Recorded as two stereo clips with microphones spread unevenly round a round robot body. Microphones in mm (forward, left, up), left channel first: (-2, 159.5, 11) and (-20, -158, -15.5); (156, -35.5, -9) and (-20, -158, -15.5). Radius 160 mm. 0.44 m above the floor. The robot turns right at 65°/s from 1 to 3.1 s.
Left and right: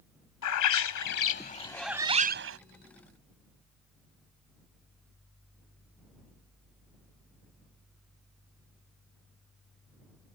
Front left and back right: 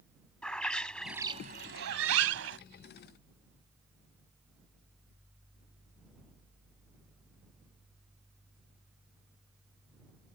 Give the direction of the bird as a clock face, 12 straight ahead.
8 o'clock.